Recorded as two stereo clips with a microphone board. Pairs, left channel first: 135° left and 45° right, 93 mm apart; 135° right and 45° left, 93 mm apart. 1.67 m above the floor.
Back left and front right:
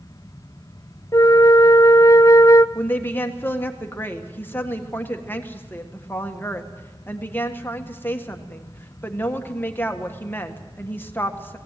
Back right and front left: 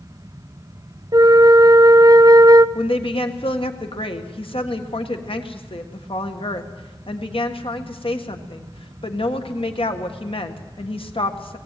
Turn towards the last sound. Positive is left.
turn(degrees=-155)